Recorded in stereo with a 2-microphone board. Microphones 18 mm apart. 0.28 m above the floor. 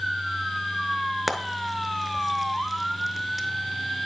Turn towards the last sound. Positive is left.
turn(degrees=-10)  # may be behind; listen again after turning